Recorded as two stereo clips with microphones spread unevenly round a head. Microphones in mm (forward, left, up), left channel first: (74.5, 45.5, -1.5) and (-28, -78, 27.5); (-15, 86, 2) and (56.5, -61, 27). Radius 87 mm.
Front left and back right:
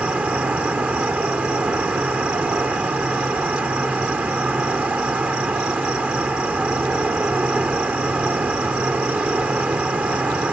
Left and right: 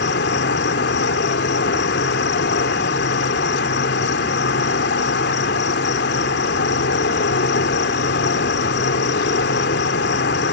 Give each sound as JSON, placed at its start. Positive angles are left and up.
{"t": 0.0, "sound": "an insect", "azimuth_deg": 150}